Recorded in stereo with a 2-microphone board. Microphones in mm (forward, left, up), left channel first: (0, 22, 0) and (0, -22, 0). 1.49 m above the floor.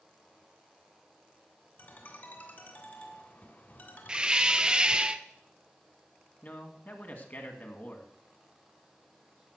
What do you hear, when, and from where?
1.8 s a ringtone: 45° left (ahead or behind), 2.5 m
4.1 s a hiss: 20° right (ahead or behind), 0.5 m
6.4 s a man speaking: 45° left (ahead or behind), 2 m